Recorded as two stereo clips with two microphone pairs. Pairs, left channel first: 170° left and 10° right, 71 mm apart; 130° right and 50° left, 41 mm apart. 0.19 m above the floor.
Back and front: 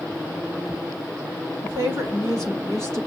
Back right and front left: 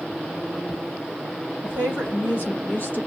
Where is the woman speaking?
165° right, 6 m.